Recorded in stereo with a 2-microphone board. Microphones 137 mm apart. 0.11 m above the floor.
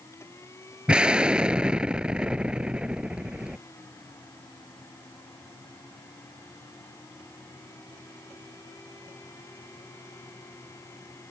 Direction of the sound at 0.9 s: 5° right (ahead or behind).